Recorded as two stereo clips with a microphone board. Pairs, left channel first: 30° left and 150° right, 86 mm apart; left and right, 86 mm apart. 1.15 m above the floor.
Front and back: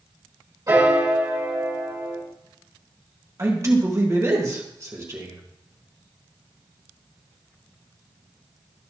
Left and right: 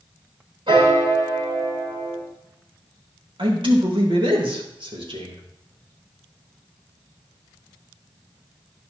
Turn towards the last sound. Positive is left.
turn(degrees=-95)